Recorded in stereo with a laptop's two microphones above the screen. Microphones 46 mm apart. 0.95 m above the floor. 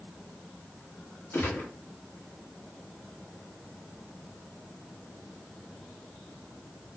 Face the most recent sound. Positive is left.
turn(degrees=65)  # may be behind; listen again after turning